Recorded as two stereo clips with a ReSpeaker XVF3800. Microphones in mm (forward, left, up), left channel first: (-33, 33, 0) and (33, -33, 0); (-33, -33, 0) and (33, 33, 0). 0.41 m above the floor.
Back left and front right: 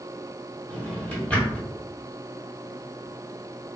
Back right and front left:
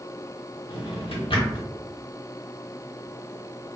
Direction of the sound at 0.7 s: 145° right.